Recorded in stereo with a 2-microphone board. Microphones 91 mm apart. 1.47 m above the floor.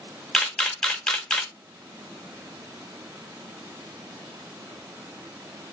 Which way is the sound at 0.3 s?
5° left (ahead or behind).